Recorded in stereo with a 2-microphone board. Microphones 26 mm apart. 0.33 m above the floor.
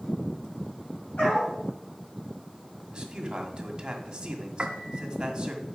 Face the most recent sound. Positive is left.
turn(degrees=-50)  # may be behind; listen again after turning